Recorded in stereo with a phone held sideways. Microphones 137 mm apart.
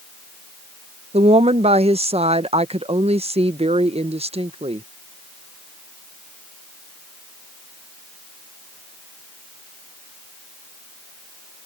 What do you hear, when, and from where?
1.1 s a woman speaking: 50° right (ahead or behind)